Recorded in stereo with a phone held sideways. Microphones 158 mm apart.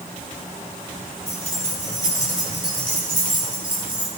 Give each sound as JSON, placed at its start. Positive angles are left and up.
{"t": 1.3, "sound": "keys jangling", "side_deg": 45, "distance_m": 3.0}